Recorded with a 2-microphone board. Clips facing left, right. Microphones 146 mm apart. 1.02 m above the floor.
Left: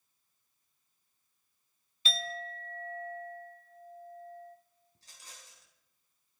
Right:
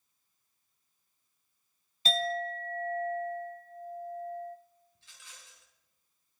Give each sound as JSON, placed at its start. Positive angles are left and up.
{"t": 2.0, "sound": "a clink", "side_deg": -40, "distance_m": 0.7}
{"t": 5.0, "sound": "a rattle", "side_deg": 40, "distance_m": 3.5}